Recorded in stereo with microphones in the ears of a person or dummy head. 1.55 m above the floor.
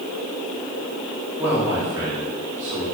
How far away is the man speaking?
About 2.5 m.